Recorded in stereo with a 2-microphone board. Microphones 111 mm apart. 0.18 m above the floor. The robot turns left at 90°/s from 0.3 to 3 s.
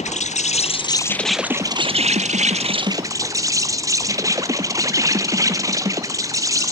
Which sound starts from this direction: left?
An insect, at 0.0 s.